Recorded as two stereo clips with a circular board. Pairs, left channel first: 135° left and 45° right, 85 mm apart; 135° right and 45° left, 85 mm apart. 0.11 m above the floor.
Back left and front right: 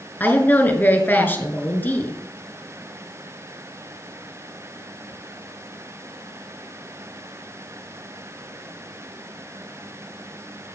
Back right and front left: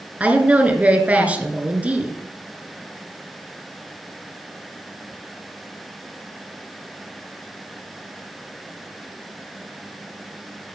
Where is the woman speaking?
100° left, 1.8 m.